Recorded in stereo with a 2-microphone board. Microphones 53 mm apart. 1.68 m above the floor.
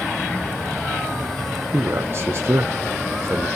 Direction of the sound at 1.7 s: 50° right (ahead or behind).